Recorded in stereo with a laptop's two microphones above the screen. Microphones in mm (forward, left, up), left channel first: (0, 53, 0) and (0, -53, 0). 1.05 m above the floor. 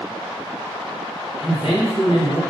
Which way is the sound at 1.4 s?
60° left (ahead or behind).